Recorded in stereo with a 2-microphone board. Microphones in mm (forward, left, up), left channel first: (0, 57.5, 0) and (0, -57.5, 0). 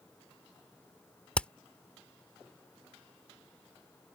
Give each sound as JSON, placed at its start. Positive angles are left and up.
{"t": 1.4, "sound": "hammering", "side_deg": 10}